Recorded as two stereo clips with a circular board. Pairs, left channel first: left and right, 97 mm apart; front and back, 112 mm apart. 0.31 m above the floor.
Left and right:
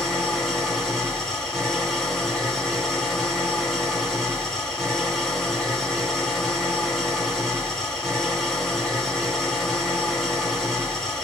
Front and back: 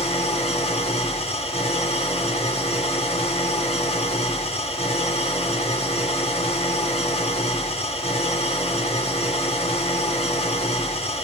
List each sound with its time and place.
0.0 s an engine running: 5° left, 2.5 m